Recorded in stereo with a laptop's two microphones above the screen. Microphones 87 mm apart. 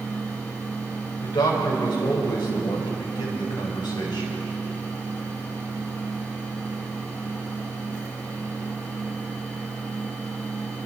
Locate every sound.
0.0 s a fan: 20° left (ahead or behind), 7 m
1.2 s a man speaking: 55° left (ahead or behind), 4.5 m